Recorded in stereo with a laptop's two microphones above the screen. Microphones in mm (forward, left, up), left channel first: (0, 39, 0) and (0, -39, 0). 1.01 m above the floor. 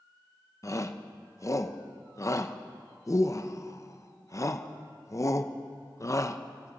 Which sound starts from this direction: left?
A shout, at 0.6 s.